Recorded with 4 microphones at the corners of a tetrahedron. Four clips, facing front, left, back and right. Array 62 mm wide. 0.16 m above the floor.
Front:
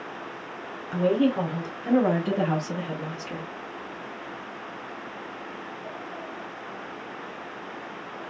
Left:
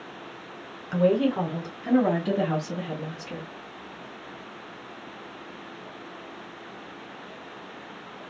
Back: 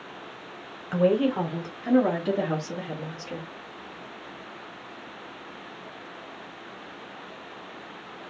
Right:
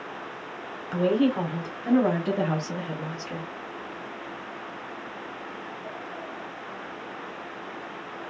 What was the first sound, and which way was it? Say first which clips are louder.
A woman speaking: left 1 dB, even; 170° left.